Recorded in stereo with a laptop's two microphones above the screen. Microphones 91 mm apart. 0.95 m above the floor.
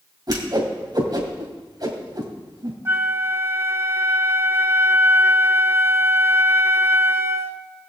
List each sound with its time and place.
0.3 s a whoosh: 50° right (ahead or behind), 2.5 m
2.9 s a flute: 30° right (ahead or behind), 1.0 m